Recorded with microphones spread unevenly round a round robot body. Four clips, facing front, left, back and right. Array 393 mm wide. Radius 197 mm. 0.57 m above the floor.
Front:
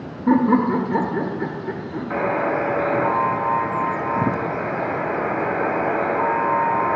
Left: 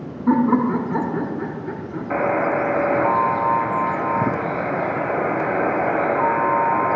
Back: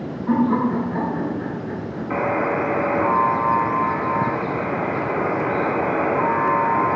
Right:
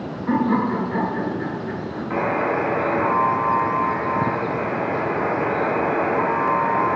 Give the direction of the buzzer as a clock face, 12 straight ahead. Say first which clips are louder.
Left 2 dB, even; 9 o'clock.